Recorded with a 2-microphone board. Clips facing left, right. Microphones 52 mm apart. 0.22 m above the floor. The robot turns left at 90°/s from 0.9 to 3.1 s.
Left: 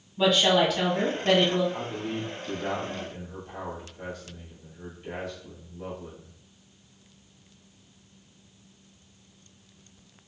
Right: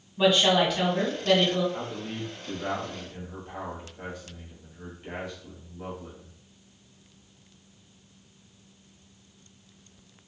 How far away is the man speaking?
About 1.0 m.